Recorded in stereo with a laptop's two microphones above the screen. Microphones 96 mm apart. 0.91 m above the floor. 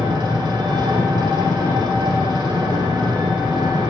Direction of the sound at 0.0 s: 50° right (ahead or behind).